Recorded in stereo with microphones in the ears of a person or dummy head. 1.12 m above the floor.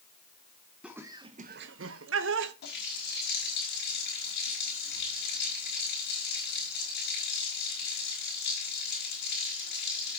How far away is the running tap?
About 4.5 m.